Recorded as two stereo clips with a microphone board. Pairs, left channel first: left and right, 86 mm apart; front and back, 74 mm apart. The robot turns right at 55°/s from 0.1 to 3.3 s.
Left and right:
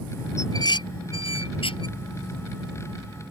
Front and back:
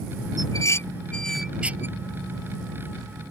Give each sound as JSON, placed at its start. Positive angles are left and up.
{"t": 0.4, "sound": "dishes clattering", "azimuth_deg": 35}